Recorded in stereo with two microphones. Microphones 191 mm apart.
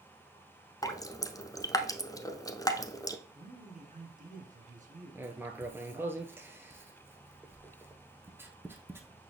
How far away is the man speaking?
About 2.0 m.